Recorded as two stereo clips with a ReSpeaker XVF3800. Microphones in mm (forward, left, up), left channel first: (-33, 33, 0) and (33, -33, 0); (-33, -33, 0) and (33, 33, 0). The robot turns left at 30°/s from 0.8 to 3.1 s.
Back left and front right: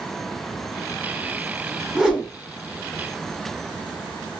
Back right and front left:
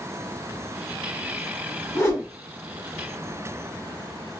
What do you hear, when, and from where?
1.9 s a whoosh: 120° right, 1.5 m; by 2.3 s 135° right, 1.5 m